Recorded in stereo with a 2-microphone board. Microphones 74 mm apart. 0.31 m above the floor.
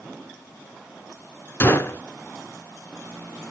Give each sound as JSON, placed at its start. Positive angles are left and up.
{"t": 1.6, "sound": "a gunshot", "side_deg": 30, "distance_m": 0.8}